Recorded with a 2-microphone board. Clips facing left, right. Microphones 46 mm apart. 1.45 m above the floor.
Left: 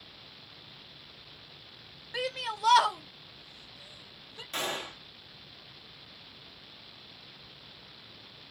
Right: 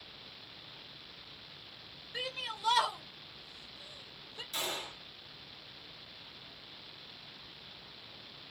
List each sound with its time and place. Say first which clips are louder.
2.1 s a shout: left 6 dB; 85° left, 1.2 m; by 4.4 s 5° left (ahead or behind), 1.2 m
4.5 s a gunshot: left 4 dB; 50° left (ahead or behind), 1.0 m